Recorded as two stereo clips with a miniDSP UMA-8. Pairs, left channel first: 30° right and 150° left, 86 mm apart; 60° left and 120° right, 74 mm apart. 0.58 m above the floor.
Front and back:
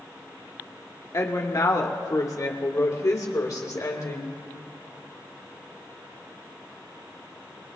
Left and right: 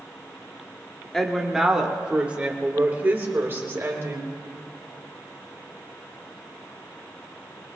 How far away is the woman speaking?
About 1.5 m.